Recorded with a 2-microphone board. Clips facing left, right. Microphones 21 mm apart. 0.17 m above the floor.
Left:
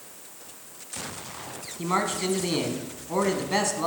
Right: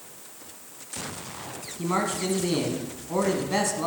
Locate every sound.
1.8 s a man speaking: 15° left (ahead or behind), 1.3 m